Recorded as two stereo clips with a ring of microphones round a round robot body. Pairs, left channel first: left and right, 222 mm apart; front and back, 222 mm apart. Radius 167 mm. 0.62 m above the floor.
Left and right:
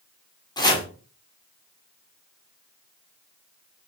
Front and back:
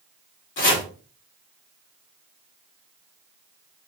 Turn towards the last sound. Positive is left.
turn(degrees=20)